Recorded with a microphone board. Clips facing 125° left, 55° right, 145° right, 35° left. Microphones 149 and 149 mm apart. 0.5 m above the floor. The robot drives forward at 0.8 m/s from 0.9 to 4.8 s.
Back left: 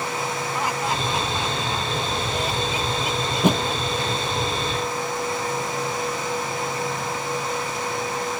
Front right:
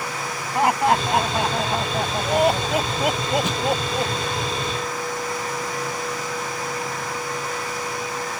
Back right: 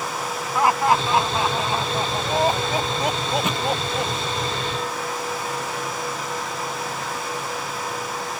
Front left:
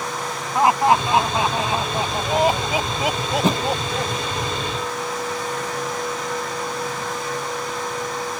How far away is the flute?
No flute in this recording.